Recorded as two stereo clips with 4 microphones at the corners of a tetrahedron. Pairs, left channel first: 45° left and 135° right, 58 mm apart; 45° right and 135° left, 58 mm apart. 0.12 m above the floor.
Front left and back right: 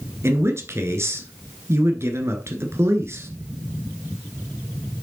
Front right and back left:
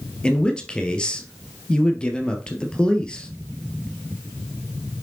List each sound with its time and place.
0.2 s a man speaking: 115° right, 1.7 m